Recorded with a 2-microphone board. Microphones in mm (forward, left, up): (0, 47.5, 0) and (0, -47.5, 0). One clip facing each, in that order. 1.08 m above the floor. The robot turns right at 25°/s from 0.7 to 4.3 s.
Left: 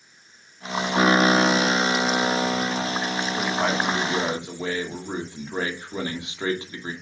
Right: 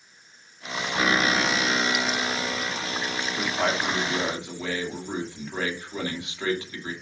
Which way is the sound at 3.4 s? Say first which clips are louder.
Left 1 dB; centre (ahead or behind).